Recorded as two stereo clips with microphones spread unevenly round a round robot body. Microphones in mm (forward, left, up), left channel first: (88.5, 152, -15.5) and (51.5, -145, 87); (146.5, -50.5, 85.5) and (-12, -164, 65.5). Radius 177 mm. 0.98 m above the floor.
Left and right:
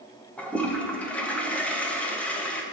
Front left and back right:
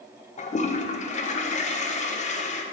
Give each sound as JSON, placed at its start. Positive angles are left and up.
{"t": 0.4, "sound": "a toilet flushing", "azimuth_deg": 45, "distance_m": 0.7}